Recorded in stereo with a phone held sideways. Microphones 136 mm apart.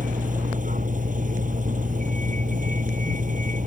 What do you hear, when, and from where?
0.0 s a vehicle: 75° right (ahead or behind)